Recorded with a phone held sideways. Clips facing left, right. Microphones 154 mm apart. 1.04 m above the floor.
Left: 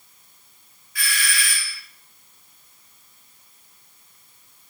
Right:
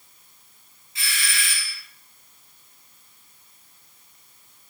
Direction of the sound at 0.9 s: 25° right (ahead or behind).